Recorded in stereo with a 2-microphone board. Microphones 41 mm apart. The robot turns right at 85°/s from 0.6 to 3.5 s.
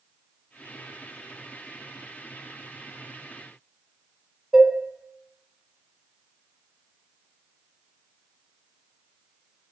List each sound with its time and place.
4.5 s dishes clattering: 10° right (ahead or behind), 1.0 m